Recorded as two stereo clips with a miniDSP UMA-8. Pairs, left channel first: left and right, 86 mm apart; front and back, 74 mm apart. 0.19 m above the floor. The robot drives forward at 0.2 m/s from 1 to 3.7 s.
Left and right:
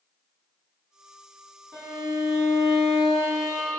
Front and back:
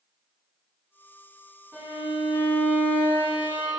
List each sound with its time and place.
1.7 s a violin: 140° right, 1.7 m; by 3.8 s 150° right, 1.9 m